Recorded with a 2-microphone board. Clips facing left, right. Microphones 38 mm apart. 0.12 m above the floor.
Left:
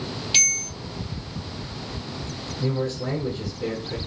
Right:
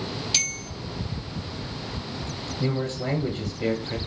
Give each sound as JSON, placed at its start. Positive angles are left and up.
{"t": 0.3, "sound": "a bell", "side_deg": 25, "distance_m": 0.7}
{"t": 2.6, "sound": "a man speaking", "side_deg": -35, "distance_m": 1.3}